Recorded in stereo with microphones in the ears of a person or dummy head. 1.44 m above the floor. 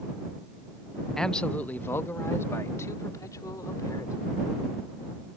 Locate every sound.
1.2 s a man speaking: centre (ahead or behind); by 4.3 s 15° left (ahead or behind)